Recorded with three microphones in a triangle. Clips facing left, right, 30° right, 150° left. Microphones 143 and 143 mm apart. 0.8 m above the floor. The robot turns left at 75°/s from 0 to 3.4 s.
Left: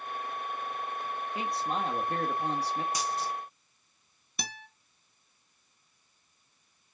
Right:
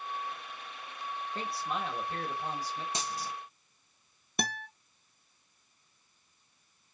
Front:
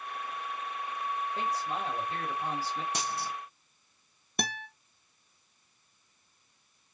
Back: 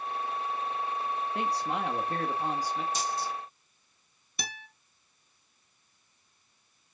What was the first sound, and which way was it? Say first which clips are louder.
A man speaking: left 4 dB, back 4 dB; 170° left.